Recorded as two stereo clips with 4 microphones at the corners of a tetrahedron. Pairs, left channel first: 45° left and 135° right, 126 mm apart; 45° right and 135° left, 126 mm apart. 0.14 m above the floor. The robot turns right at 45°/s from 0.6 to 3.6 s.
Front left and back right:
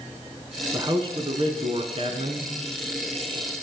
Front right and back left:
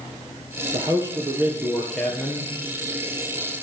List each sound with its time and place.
0.7 s a man speaking: 175° left, 1.9 m; by 2.5 s 105° right, 1.9 m